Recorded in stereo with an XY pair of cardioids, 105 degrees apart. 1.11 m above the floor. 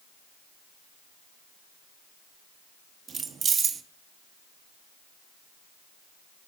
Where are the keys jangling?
45° right, 1.4 m.